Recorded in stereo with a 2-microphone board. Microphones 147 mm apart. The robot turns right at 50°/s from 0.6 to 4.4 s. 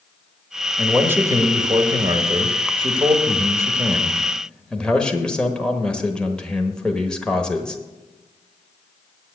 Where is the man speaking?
170° right, 1.1 m; by 7.8 s 10° left, 1.1 m.